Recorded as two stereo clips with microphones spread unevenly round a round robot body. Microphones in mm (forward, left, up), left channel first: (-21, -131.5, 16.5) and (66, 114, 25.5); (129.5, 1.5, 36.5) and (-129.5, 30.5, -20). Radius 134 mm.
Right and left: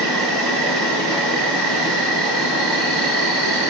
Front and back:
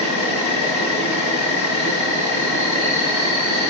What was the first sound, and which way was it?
An insect, 25° right.